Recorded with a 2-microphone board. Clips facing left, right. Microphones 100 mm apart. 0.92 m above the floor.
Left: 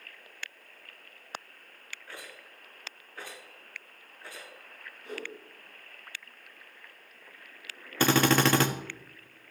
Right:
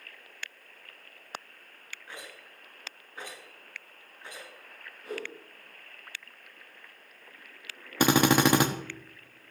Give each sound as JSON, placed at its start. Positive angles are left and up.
{"t": 2.1, "sound": "a rattle", "side_deg": -20, "distance_m": 5.0}
{"t": 5.0, "sound": "a whoosh", "side_deg": -40, "distance_m": 9.5}
{"t": 8.0, "sound": "a drill", "side_deg": -15, "distance_m": 1.5}